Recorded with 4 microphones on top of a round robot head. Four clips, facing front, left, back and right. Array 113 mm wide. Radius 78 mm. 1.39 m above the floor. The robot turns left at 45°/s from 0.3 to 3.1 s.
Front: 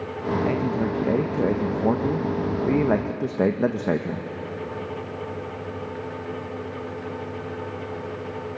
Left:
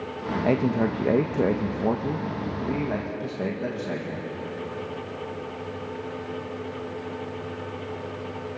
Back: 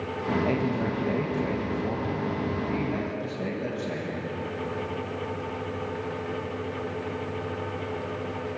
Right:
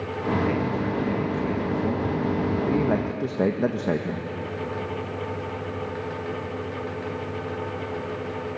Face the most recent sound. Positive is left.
turn(degrees=-30)